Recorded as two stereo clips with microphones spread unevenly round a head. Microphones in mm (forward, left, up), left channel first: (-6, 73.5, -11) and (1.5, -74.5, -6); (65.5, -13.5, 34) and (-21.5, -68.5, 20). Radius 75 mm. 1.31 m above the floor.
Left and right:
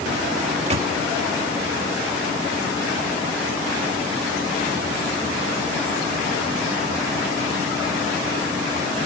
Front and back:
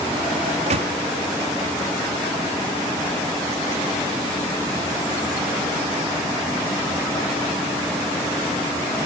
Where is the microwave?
140° right.